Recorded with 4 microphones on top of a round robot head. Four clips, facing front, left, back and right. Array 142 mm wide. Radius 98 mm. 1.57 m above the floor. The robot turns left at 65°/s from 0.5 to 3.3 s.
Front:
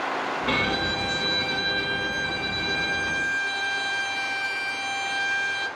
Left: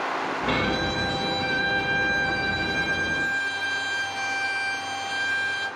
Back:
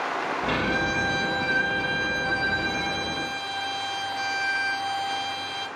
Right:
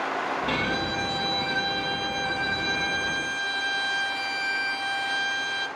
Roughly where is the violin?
Ahead left.